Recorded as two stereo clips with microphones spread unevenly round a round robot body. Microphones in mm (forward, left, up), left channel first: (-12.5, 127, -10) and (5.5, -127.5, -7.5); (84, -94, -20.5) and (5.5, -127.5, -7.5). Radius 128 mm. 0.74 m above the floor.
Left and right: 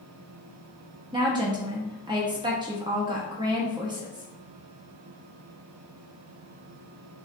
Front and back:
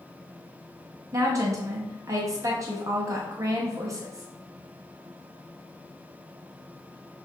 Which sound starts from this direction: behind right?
A woman speaking, at 1.1 s.